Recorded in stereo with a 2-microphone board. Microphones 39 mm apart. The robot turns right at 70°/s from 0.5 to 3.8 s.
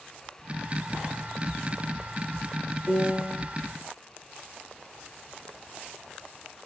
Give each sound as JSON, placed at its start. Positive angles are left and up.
{"t": 2.9, "sound": "a piano", "azimuth_deg": -50, "distance_m": 4.5}